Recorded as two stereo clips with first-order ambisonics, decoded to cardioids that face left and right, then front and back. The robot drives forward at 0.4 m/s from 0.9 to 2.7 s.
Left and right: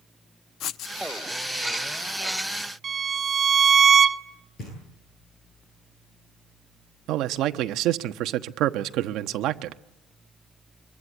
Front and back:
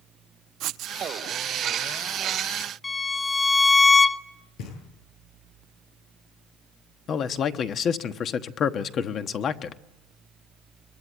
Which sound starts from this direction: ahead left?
Knocking, at 4.6 s.